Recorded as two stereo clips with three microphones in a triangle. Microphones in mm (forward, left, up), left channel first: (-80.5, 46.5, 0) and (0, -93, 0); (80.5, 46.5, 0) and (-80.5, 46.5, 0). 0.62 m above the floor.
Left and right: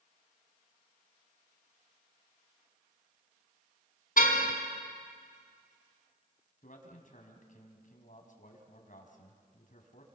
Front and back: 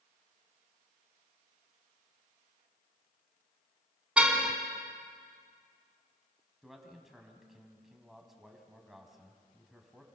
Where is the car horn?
95° left, 3 m.